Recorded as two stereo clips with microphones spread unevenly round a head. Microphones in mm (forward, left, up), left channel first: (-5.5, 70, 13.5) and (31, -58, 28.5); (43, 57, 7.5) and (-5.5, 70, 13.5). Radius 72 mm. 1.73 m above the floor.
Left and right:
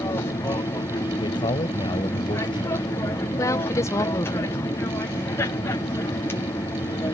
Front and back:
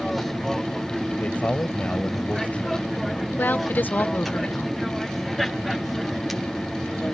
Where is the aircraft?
65° left.